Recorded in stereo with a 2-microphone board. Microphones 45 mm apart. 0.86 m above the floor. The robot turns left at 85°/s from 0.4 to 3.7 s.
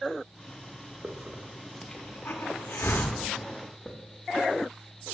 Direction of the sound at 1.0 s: 45° right (ahead or behind).